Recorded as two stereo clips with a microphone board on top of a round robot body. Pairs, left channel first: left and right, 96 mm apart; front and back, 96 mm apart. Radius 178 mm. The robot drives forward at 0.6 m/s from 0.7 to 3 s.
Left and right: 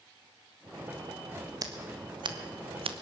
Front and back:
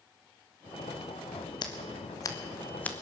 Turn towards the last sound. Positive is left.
turn(degrees=-80)